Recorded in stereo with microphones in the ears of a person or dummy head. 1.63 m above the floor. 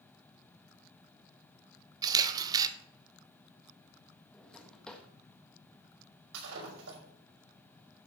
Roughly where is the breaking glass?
Right.